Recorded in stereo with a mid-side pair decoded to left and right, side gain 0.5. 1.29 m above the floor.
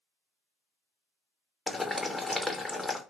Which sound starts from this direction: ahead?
Boiling, at 1.7 s.